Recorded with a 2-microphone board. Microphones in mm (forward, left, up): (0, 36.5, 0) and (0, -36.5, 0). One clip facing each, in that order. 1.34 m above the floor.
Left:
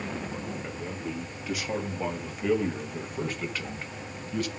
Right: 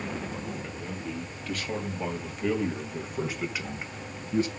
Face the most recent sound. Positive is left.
turn(degrees=-30)  # may be behind; listen again after turning